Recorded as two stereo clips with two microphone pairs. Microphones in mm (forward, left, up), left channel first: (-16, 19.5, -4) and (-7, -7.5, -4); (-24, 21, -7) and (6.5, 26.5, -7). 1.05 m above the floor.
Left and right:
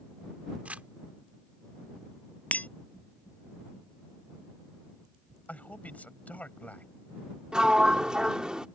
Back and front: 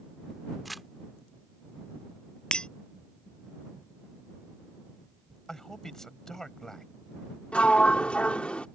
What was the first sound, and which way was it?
Crumpling, 85° right.